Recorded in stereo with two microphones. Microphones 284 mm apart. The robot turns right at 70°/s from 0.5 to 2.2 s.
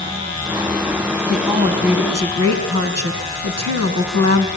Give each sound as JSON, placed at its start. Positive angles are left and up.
{"t": 1.3, "sound": "a woman speaking", "azimuth_deg": 175, "distance_m": 4.5}